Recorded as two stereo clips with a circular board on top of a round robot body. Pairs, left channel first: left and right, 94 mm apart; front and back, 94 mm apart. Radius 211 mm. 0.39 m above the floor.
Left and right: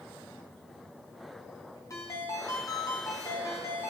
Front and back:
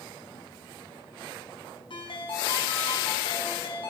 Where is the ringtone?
30° left, 3 m.